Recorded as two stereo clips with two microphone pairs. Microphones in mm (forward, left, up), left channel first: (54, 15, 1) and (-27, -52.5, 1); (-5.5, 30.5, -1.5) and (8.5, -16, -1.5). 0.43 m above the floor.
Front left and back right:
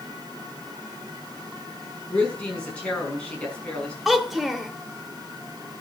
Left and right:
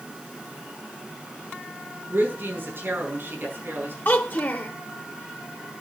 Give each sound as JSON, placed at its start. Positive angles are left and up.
{"t": 2.1, "sound": "a woman speaking", "azimuth_deg": -40, "distance_m": 5.5}
{"t": 4.0, "sound": "a child speaking", "azimuth_deg": 135, "distance_m": 0.8}